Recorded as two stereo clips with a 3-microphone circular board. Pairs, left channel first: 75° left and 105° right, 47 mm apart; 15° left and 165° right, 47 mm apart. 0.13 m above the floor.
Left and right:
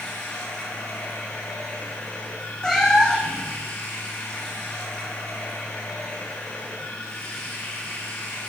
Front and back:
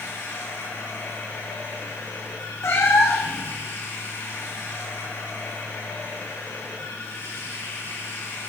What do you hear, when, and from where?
0.0 s running water: 30° left, 6 m
2.6 s a cat meowing: straight ahead, 2 m